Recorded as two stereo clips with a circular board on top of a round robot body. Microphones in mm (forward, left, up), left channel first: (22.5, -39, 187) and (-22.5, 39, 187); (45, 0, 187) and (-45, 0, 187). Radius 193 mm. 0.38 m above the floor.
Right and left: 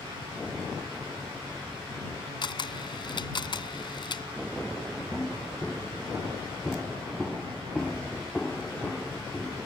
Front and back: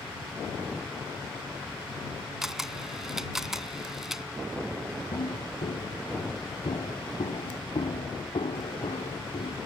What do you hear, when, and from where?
2.4 s a camera shutter: 95° right
5.1 s footsteps: 30° left; by 9.6 s 25° left